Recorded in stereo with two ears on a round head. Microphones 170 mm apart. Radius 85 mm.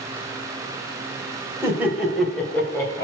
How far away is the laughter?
About 2.5 m.